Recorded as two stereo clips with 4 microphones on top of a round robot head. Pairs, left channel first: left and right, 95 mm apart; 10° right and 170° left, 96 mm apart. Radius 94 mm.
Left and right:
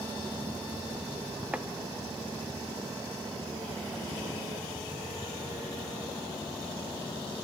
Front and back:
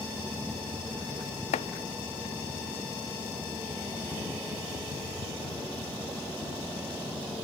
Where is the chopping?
10° right, 0.5 m.